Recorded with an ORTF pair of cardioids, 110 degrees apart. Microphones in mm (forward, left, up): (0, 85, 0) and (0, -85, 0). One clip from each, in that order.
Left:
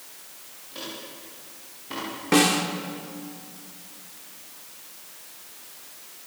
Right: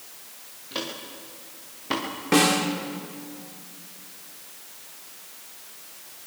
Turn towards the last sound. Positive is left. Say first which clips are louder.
# even
turn(degrees=5)